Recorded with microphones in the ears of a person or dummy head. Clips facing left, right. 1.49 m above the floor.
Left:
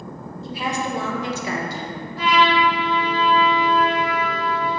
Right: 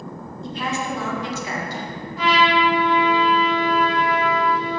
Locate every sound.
0.4 s a woman speaking: centre (ahead or behind), 0.7 m; by 2.0 s 75° left (ahead or behind), 0.8 m
2.2 s a trumpet: 30° left (ahead or behind), 1.3 m